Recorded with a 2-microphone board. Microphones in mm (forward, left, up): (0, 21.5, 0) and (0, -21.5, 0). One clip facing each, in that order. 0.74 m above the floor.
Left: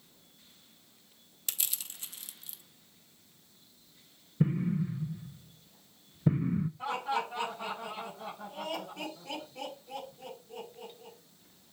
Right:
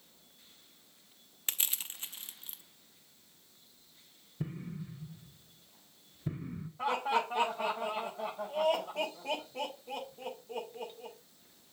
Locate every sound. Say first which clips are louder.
1.5 s crushing: right 3 dB; 35° right (ahead or behind), 0.7 m
4.4 s an explosion: left 12 dB; 30° left (ahead or behind), 0.5 m
6.8 s laughter: right 7 dB; 55° right (ahead or behind), 4.5 m